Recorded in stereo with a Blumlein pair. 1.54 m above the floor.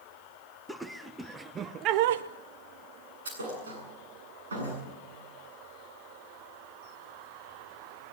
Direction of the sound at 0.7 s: 5° right.